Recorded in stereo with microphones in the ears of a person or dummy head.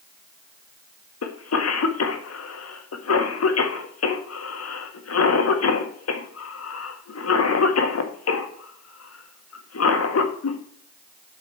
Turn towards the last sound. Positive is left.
turn(degrees=80)